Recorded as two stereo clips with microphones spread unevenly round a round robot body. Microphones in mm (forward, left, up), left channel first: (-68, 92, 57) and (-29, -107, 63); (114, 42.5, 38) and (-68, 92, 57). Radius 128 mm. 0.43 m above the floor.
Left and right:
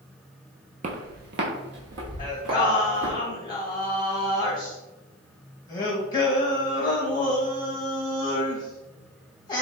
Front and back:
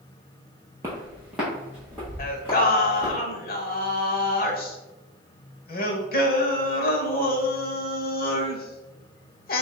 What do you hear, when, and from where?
0.8 s footsteps: 125° right, 0.6 m; by 3.2 s 100° right, 2 m
2.2 s singing: 30° left, 0.8 m